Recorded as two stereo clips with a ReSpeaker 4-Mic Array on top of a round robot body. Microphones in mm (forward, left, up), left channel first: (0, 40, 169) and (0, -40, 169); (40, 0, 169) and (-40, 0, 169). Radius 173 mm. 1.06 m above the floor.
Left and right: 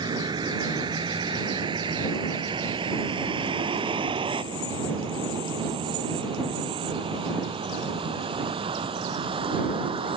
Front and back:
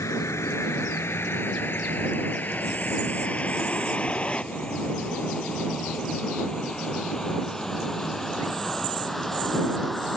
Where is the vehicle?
55° right; by 10.2 s 90° right.